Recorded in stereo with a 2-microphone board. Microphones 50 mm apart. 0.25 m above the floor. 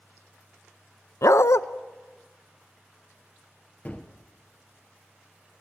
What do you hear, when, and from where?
1.2 s a dog barking: 85° left, 0.6 m
3.9 s a gunshot: 30° left (ahead or behind), 1.4 m